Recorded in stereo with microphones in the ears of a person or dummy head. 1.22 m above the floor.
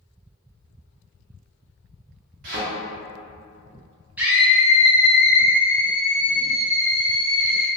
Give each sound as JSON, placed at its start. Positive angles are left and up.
{"t": 2.4, "sound": "a thud", "side_deg": -45, "distance_m": 0.9}
{"t": 4.2, "sound": "a scream", "side_deg": 0, "distance_m": 0.7}